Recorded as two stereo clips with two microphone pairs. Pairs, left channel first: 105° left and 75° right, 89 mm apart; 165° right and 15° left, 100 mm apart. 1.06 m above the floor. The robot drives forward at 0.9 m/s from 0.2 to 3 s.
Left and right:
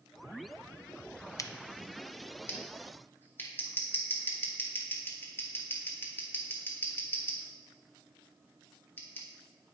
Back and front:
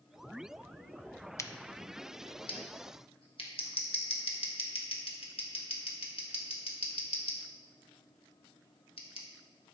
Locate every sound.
1.4 s scissors: 140° left, 0.6 m; by 9.3 s 170° left, 1.8 m